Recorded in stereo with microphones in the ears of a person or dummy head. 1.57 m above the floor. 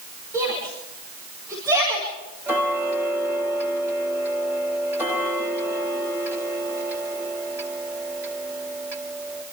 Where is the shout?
20° right (ahead or behind), 5.5 m.